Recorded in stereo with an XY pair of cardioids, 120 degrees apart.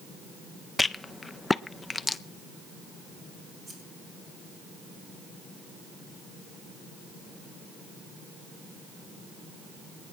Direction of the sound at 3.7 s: 40° right.